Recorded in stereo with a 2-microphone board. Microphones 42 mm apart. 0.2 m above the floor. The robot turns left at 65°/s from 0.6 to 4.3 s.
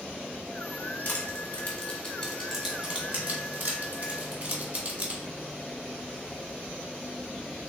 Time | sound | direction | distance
1.1 | crushing | 45° left (ahead or behind) | 1.3 m